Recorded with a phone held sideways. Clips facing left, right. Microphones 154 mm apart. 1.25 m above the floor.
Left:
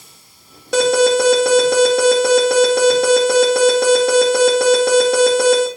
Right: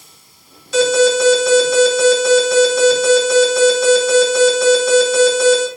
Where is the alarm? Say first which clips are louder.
Even; 65° left (ahead or behind), 3 m.